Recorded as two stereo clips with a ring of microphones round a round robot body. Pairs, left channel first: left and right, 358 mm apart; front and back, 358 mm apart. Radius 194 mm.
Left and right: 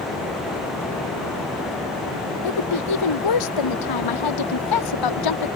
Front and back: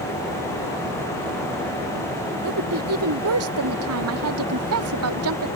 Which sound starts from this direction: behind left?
A woman speaking, at 2.4 s.